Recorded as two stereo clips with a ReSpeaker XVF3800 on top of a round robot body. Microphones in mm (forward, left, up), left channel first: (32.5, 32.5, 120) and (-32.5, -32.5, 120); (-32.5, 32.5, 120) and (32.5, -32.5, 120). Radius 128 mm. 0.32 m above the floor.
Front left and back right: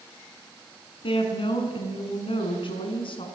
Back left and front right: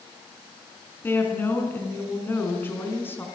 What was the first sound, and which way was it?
A woman speaking, 70° left.